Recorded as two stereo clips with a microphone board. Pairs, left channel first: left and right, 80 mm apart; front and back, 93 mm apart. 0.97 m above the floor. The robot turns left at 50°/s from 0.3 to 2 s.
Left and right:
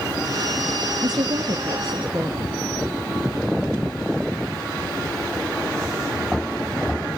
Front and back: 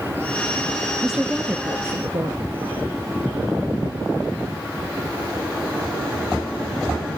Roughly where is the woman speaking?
Right.